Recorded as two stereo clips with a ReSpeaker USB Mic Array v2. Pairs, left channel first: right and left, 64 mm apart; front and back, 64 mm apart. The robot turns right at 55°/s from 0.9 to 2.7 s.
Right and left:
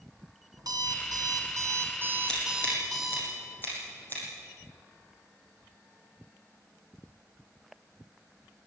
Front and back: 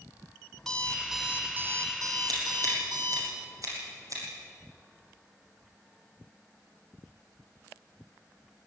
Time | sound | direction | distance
0.6 | an alarm clock | 80° left | 3.5 m
2.3 | scissors | 170° right | 8.5 m